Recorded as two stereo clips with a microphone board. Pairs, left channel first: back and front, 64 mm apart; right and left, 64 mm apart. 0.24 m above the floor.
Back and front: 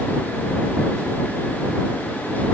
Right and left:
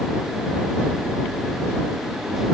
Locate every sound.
Only background noise.